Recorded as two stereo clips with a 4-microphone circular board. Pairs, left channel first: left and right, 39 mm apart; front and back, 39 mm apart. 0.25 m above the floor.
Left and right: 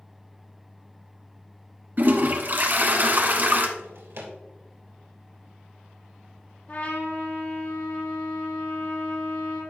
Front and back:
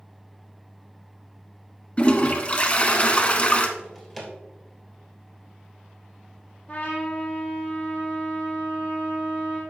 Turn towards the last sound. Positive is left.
turn(degrees=60)